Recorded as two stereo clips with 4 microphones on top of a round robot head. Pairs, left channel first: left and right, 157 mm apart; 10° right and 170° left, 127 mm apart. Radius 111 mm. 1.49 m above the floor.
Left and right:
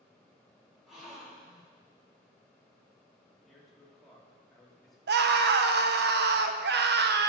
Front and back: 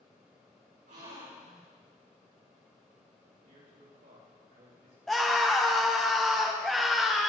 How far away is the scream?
About 1.2 m.